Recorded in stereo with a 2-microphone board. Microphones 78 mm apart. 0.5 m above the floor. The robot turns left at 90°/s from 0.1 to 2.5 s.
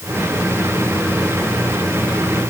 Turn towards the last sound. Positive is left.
No sound to turn to.